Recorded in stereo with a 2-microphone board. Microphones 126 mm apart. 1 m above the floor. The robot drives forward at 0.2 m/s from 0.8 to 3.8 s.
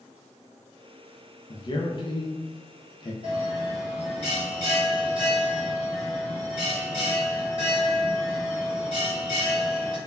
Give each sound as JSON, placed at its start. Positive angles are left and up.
{"t": 1.5, "sound": "a man speaking", "side_deg": 35, "distance_m": 0.6}
{"t": 3.2, "sound": "a bell", "side_deg": -45, "distance_m": 1.4}